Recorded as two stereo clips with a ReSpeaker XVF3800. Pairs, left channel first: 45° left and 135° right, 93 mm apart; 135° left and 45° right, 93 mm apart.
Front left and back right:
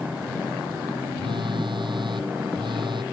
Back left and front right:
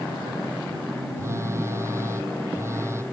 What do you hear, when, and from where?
1.2 s a phone buzzing: 105° right